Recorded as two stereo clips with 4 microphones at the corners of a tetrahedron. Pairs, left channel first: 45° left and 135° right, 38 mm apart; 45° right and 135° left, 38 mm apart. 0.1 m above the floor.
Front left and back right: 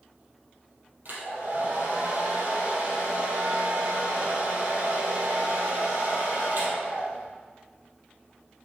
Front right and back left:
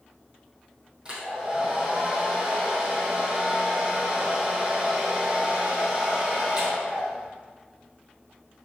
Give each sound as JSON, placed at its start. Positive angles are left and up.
{"t": 1.1, "sound": "a hair dryer", "azimuth_deg": -160, "distance_m": 3.0}